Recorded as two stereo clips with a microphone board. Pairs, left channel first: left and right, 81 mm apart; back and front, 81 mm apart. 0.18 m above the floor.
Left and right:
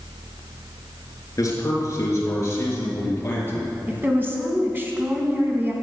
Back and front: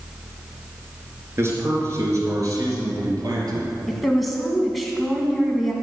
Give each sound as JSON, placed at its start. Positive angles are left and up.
{"t": 1.4, "sound": "a man speaking", "azimuth_deg": 50, "distance_m": 3.0}
{"t": 3.9, "sound": "a woman speaking", "azimuth_deg": -90, "distance_m": 1.7}